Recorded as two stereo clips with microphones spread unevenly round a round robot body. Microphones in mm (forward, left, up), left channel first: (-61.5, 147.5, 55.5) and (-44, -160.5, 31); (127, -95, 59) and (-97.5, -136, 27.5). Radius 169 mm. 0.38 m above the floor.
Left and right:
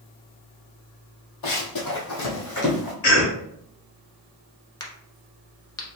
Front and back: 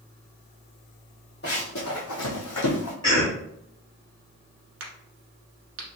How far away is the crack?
About 1.1 m.